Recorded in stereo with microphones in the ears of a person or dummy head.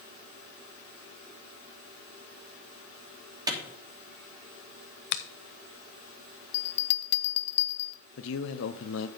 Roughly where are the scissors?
No scissors in this recording.